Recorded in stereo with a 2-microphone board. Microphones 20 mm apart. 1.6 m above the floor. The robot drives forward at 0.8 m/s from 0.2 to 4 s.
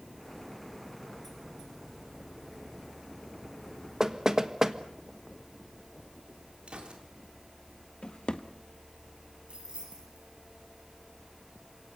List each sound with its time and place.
4.0 s knocking: 25° right (ahead or behind), 1.3 m
6.7 s a gunshot: 55° right (ahead or behind), 4 m
8.0 s a drawer: 45° left (ahead or behind), 1.4 m
9.5 s keys jangling: 50° right (ahead or behind), 9.5 m